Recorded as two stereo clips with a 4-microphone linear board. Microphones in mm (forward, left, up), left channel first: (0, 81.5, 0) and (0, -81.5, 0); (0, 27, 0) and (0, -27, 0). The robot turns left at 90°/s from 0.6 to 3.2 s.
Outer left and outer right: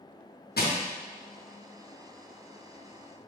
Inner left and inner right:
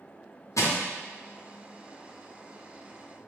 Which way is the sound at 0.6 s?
75° left (ahead or behind).